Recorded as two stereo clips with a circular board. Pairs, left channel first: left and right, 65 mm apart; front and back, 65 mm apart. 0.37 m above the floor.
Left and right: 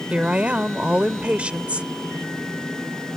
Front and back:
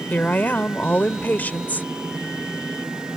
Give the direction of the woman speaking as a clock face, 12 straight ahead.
1 o'clock.